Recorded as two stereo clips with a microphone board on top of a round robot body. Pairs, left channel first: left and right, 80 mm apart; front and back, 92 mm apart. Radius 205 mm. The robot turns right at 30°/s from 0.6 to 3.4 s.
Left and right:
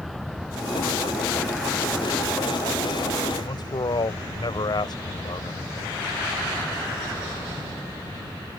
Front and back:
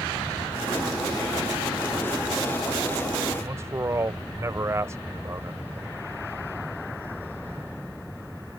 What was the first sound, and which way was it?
A man speaking, 120° left.